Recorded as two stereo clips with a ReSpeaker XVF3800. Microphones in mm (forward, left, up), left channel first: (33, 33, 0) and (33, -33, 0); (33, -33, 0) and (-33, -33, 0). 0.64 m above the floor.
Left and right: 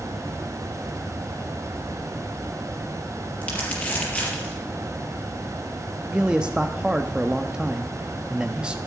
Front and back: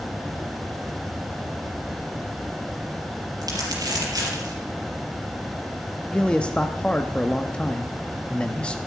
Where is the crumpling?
155° left, 4.5 m.